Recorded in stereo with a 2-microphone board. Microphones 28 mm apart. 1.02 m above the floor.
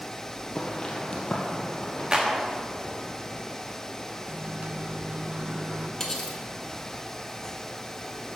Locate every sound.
0.6 s footsteps: 30° left (ahead or behind), 1.7 m; by 2.0 s 35° left (ahead or behind), 2.5 m
2.1 s a clap: 35° right (ahead or behind), 1.3 m
4.3 s a microwave: 60° right (ahead or behind), 0.6 m
6.0 s cutlery clinking: 20° left (ahead or behind), 1.4 m